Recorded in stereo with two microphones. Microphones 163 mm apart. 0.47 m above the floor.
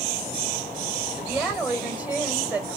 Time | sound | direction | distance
1.1 | a woman speaking | 10° right (ahead or behind) | 2.5 m